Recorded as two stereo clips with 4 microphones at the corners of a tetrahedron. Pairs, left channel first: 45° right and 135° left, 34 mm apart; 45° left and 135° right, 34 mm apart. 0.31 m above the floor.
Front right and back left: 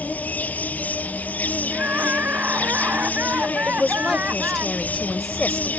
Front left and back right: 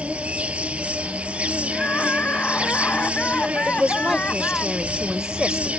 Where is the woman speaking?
110° right.